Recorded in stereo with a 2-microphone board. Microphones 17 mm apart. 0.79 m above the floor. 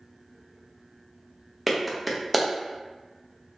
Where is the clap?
5° right (ahead or behind), 0.5 m.